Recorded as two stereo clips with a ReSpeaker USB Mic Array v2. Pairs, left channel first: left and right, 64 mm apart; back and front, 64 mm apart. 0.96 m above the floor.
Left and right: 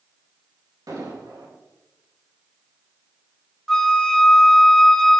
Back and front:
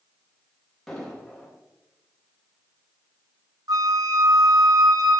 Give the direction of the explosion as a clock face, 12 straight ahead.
3 o'clock.